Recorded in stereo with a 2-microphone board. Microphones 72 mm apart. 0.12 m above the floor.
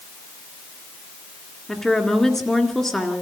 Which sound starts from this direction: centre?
A woman speaking, at 1.7 s.